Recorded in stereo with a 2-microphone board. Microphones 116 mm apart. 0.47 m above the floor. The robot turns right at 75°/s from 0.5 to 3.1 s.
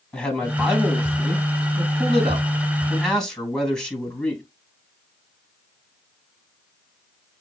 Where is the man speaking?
170° left, 3.5 m; by 4.4 s 5° left, 3.5 m.